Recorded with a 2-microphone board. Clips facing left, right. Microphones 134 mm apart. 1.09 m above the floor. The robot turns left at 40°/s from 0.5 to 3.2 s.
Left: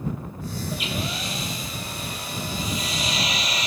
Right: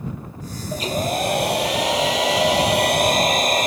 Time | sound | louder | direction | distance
0.7 | a hair dryer | right 11 dB | 30° right | ?